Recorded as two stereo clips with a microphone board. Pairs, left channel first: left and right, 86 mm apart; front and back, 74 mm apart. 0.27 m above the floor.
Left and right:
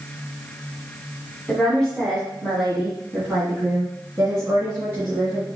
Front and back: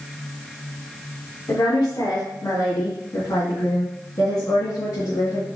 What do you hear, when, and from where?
1.5 s a woman speaking: 10° left, 2.5 m; by 5.5 s 35° right, 4 m